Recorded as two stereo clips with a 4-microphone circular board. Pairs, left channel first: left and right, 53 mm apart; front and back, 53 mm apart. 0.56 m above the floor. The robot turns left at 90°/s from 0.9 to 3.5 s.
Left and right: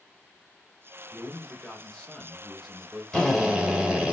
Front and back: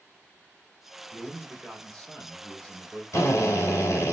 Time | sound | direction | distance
1.1 | a man speaking | 140° left | 1.0 m
3.1 | a drill | 20° left | 1.0 m